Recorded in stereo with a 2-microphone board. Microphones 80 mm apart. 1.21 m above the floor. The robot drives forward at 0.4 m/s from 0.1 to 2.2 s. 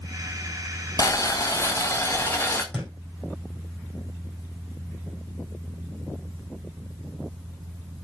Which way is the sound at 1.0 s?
45° left (ahead or behind).